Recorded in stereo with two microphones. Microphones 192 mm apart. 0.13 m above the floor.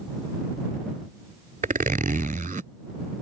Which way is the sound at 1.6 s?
45° right (ahead or behind).